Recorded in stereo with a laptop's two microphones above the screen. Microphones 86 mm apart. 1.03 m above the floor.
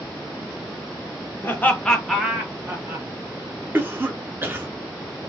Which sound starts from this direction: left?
Laughter, at 1.4 s.